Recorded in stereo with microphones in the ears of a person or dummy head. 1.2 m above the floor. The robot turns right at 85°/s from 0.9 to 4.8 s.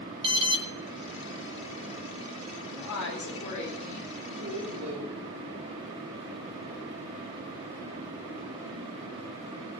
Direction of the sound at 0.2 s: 25° right (ahead or behind).